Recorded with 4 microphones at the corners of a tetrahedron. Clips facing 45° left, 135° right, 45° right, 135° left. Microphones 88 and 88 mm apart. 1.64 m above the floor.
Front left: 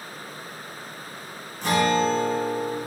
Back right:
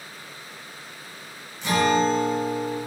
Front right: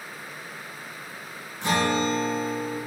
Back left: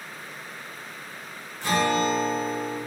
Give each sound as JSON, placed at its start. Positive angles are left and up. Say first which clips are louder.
{"t": 1.6, "sound": "a guitar", "louder": "back right 1 dB, back left 1 dB", "azimuth_deg": 20, "distance_m": 0.7}